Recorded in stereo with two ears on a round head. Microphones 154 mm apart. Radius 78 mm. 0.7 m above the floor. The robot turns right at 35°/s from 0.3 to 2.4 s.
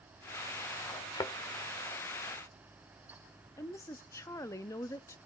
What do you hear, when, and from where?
1.1 s a thud: 25° left (ahead or behind), 1.0 m; by 1.3 s 20° left (ahead or behind), 1.0 m
3.6 s a woman speaking: 15° left (ahead or behind), 0.6 m